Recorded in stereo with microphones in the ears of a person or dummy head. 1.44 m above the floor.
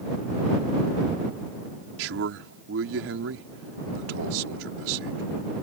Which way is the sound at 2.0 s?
80° right.